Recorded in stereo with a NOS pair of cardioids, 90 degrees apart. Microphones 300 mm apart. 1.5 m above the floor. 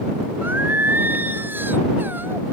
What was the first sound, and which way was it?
Singing, 5° right.